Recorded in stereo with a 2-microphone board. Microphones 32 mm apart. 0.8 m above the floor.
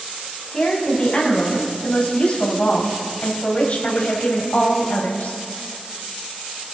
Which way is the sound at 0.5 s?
30° left (ahead or behind).